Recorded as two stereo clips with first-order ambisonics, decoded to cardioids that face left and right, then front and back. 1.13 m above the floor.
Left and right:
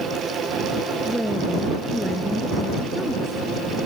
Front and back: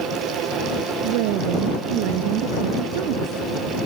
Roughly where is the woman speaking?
Behind.